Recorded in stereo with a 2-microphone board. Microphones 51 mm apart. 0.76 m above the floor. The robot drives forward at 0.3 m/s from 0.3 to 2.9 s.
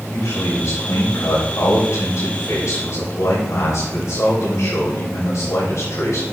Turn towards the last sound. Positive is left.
turn(degrees=80)